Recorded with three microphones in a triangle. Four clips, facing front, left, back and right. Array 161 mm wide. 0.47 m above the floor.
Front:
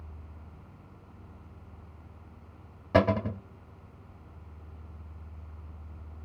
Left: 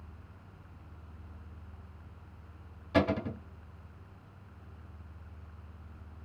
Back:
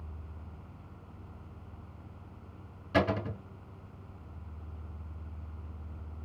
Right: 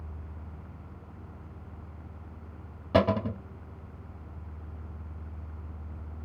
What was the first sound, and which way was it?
A cupboard door, 50° right.